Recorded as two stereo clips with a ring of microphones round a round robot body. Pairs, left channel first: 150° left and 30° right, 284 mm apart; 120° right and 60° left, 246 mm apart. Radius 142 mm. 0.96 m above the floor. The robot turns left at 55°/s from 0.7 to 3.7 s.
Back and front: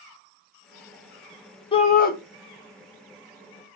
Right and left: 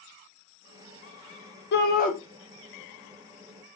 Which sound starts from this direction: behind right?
A shout, at 1.7 s.